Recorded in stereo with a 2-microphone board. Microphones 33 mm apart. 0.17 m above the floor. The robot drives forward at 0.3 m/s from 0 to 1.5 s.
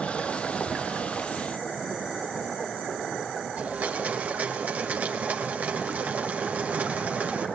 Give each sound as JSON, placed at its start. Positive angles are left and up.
{"t": 3.6, "sound": "a blender", "side_deg": -50, "distance_m": 4.5}